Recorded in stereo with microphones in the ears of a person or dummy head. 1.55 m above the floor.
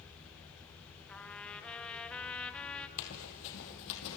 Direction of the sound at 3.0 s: 65° left (ahead or behind).